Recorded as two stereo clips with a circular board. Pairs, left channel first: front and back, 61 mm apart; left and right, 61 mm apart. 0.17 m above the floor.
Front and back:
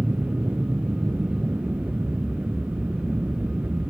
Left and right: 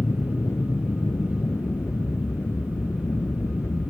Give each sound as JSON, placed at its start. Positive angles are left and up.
{"t": 0.0, "sound": "an aircraft", "azimuth_deg": 125}